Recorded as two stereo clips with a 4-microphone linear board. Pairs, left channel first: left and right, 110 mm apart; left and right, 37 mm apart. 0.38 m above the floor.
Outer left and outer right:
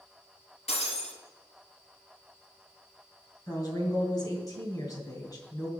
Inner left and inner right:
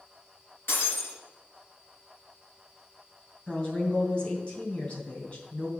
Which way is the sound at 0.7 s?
75° left (ahead or behind).